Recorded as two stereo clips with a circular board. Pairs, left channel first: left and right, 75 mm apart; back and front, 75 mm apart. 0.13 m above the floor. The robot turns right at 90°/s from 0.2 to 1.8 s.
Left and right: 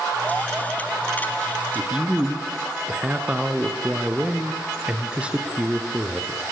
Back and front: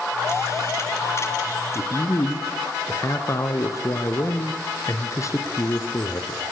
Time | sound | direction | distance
1.8 | a man speaking | 165° right | 1.7 m